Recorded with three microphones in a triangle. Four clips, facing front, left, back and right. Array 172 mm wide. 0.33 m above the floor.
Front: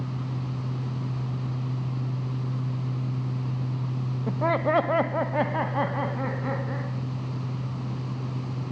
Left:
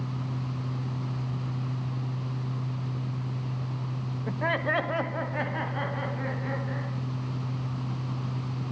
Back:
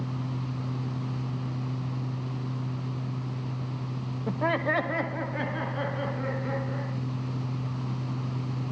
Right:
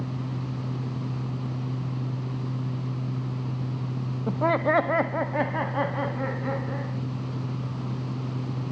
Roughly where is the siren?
No siren in this recording.